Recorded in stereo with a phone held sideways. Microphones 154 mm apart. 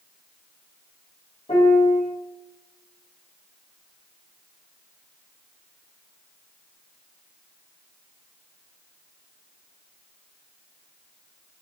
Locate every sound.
1.5 s a piano: 40° left (ahead or behind), 4.5 m